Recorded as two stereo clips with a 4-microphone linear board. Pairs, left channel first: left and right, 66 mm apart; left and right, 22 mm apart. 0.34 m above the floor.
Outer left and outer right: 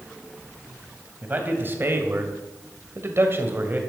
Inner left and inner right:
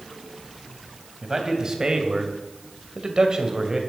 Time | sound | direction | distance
1.2 | a man speaking | 30° right (ahead or behind) | 2.5 m